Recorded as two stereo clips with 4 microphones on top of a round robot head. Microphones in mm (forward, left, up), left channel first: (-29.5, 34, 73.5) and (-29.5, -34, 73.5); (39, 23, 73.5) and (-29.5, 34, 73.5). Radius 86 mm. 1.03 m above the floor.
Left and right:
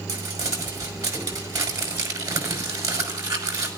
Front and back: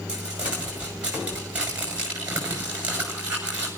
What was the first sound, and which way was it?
Crumpling, 115° right.